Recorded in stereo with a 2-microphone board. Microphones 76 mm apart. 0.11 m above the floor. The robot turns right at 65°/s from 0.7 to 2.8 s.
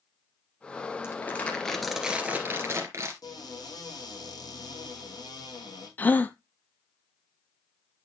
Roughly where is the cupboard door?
Left.